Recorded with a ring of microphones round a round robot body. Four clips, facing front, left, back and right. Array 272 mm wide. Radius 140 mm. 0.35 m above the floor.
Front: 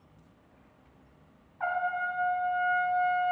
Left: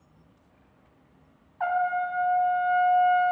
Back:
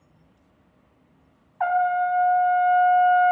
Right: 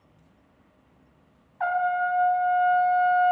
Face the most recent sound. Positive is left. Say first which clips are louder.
# right 1 dB, back 9 dB
turn(degrees=-170)